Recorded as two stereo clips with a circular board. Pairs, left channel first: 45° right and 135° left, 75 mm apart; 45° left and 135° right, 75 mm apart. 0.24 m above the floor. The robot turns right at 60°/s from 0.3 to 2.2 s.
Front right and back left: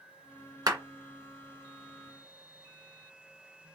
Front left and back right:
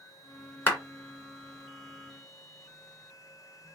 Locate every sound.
0.7 s a clap: 100° left, 2.5 m; by 0.8 s 110° left, 2.5 m